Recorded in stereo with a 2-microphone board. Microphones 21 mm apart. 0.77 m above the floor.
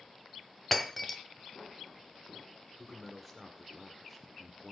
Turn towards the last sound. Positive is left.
turn(degrees=0)  # may be behind; listen again after turning